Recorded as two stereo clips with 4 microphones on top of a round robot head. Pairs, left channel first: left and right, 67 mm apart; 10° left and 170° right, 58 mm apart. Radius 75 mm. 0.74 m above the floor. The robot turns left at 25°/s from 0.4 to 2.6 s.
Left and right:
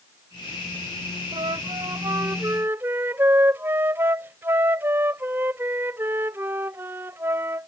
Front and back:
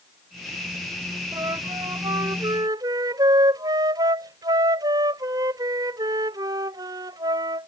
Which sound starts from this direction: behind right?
A flute, at 1.3 s.